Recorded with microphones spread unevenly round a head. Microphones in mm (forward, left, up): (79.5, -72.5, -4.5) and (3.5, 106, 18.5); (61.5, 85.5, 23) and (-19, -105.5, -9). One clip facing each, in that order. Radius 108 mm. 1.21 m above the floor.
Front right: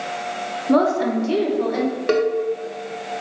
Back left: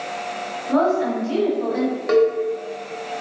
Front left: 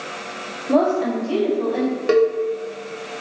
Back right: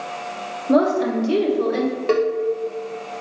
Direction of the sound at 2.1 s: 10° right.